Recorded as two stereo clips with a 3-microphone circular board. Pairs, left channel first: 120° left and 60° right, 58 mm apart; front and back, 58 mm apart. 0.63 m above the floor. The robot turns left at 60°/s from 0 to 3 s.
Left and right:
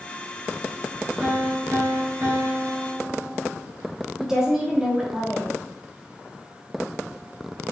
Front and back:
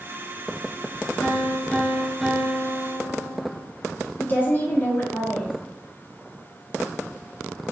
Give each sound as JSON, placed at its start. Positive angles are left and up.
{"t": 1.2, "sound": "a piano", "azimuth_deg": -30, "distance_m": 1.9}
{"t": 4.2, "sound": "a woman speaking", "azimuth_deg": 10, "distance_m": 1.0}